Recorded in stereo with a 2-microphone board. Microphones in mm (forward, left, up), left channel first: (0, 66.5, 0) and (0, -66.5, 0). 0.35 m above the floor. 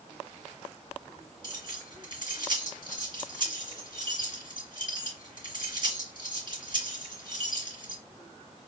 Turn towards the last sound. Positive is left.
turn(degrees=-40)  # may be behind; listen again after turning